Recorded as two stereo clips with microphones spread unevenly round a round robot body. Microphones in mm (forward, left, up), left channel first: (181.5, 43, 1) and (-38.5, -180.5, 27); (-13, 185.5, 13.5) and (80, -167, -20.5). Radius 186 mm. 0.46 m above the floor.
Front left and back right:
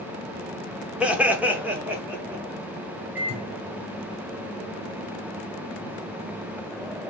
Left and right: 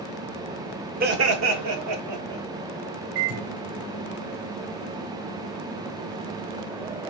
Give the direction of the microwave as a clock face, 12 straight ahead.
2 o'clock.